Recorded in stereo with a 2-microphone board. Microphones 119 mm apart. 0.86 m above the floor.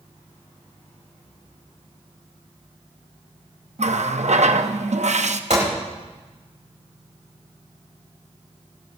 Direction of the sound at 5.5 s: 75° right (ahead or behind).